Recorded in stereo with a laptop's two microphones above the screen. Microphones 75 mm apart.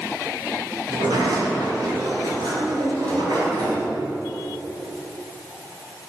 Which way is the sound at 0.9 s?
80° right.